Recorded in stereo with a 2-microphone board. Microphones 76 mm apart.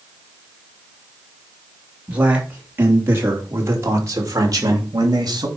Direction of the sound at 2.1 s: 20° right (ahead or behind).